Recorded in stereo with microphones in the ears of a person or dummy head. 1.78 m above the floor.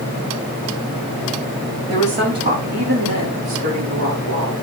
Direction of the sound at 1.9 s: 40° right (ahead or behind).